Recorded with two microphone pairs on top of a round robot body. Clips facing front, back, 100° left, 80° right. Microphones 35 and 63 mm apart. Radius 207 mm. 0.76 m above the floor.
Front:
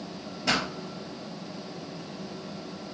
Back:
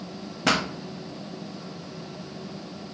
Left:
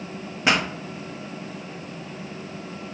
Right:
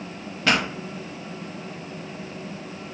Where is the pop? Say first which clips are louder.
Back 3 dB, even; 170° left, 0.7 m.